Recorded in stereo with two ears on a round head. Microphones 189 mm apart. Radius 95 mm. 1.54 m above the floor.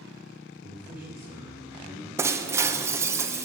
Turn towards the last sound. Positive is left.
turn(degrees=-15)  # may be behind; listen again after turning